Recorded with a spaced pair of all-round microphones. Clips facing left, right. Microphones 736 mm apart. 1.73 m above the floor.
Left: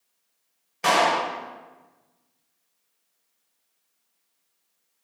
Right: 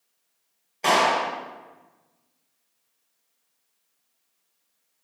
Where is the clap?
45° left (ahead or behind), 1.4 m.